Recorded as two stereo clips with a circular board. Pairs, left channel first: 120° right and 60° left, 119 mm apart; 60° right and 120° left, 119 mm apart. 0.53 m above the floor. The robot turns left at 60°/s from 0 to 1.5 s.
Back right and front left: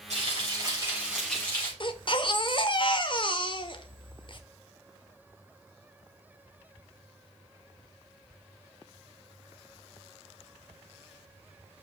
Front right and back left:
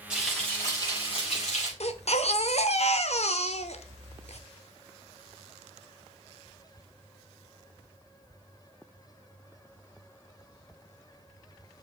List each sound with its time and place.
0.1 s frying: 40° left, 5 m; by 1.7 s 45° right, 5 m
1.8 s a baby crying: 75° right, 0.8 m